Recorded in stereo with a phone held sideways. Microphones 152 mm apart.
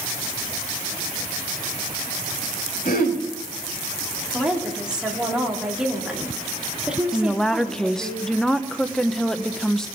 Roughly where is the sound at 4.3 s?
Centre.